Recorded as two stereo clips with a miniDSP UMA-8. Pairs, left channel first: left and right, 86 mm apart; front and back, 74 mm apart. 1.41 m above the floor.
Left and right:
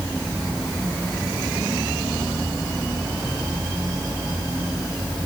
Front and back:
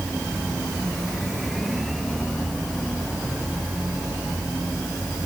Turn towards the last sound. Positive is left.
No sound to turn to.